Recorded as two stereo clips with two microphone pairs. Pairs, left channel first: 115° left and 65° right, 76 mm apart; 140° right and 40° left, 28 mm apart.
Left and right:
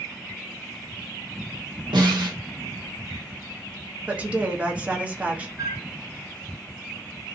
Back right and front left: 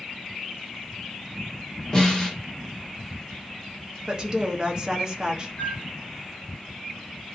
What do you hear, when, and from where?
1.9 s a snare drum: 70° right, 1.0 m
4.1 s a woman speaking: straight ahead, 0.6 m
5.6 s a flute: 115° right, 1.0 m